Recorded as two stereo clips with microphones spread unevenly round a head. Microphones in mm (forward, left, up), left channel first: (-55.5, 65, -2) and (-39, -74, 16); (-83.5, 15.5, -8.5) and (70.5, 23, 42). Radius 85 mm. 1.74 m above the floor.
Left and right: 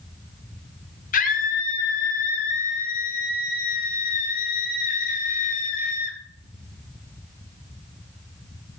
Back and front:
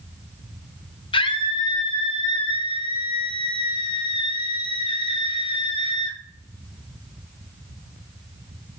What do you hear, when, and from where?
1.1 s a scream: 120° left, 2.5 m